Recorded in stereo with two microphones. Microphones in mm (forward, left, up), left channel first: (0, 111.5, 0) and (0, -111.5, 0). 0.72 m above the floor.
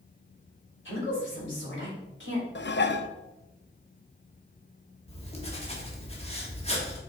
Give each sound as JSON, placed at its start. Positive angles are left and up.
{"t": 0.8, "sound": "a woman speaking", "side_deg": 55, "distance_m": 3.5}
{"t": 2.5, "sound": "dishes clattering", "side_deg": 50, "distance_m": 0.5}
{"t": 5.1, "sound": "writing", "side_deg": 25, "distance_m": 1.4}